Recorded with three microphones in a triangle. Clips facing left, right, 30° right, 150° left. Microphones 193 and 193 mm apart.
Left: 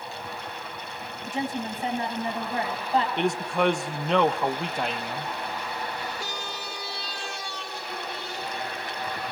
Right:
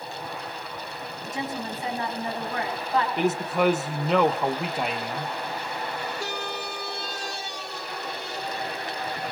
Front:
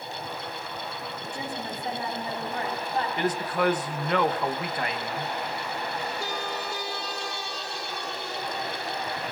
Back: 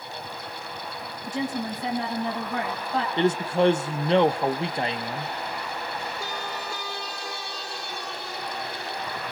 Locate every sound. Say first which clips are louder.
1.3 s a woman speaking: left 2 dB, back 8 dB; 150° left, 7 m
3.2 s a man speaking: right 1 dB, back 7 dB; 175° right, 0.8 m